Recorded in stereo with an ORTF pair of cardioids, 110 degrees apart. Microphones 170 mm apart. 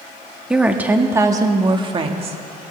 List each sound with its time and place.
0.5 s a woman speaking: 5° right, 1.5 m; by 2.4 s 40° right, 1.6 m